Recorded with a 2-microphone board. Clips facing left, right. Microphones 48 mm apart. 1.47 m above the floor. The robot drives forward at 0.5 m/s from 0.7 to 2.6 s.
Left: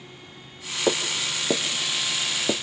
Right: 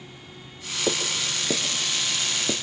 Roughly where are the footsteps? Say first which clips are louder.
Left 2 dB; left.